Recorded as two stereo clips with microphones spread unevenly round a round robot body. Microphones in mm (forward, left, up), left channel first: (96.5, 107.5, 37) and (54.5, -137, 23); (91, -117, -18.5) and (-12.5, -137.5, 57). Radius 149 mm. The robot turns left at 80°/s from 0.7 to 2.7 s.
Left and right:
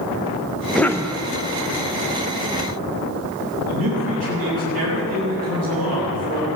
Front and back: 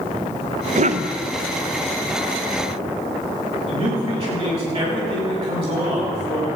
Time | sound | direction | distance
0.8 | a cough | 170° left | 0.7 m
3.7 | a man speaking | 140° right | 7.5 m